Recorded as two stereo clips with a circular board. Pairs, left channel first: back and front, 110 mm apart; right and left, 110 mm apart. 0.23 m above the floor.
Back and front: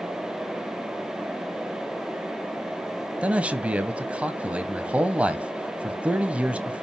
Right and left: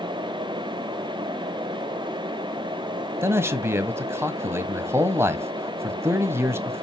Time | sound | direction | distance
3.2 | a man speaking | 65° left | 1.3 m